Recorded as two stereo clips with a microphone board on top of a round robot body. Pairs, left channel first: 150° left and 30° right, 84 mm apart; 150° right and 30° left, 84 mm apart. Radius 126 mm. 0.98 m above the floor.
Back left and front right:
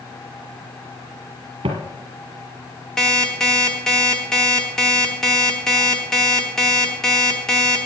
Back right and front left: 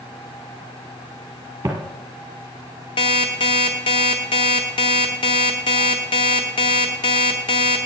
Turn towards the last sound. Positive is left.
turn(degrees=-125)